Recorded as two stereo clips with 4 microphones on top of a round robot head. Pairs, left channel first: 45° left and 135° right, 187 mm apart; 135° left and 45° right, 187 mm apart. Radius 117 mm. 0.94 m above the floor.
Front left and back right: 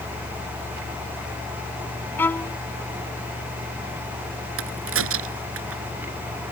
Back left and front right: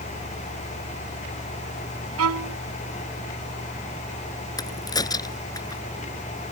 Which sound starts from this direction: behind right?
A crack, at 4.6 s.